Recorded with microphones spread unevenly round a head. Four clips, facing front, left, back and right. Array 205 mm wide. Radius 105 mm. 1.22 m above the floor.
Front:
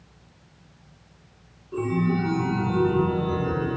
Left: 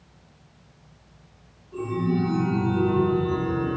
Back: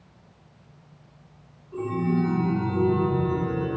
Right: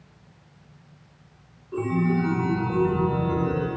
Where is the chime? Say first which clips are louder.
Right 2 dB, front 1 dB; 50° right, 2.5 m.